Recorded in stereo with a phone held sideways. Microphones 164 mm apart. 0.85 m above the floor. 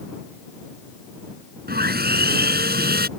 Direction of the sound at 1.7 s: 70° right (ahead or behind).